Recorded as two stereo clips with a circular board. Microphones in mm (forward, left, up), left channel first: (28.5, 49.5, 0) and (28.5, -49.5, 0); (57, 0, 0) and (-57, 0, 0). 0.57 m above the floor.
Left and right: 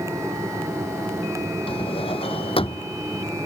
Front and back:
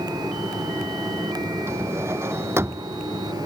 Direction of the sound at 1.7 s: 110° left.